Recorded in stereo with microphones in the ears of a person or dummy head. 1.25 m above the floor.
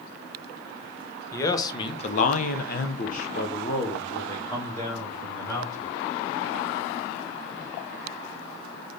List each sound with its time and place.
1.3 s a man speaking: 20° left (ahead or behind), 1.1 m; by 5.9 s 15° left (ahead or behind), 2.5 m